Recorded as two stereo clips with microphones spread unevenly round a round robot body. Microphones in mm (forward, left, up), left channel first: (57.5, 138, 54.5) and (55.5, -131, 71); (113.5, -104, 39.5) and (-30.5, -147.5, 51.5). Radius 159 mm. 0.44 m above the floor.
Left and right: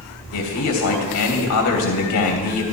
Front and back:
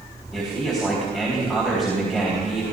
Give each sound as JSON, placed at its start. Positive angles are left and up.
{"t": 0.3, "sound": "a man speaking", "azimuth_deg": 105, "distance_m": 3.0}